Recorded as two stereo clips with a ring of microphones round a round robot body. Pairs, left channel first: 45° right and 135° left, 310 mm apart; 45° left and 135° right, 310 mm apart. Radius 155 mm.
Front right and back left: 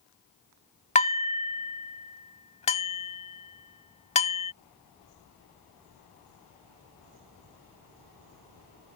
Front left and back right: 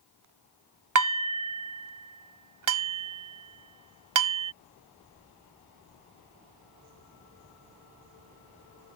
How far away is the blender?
I don't hear a blender.